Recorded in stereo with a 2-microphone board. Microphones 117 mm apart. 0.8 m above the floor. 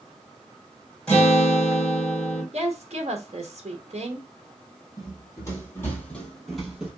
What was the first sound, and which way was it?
A guitar, 10° left (ahead or behind).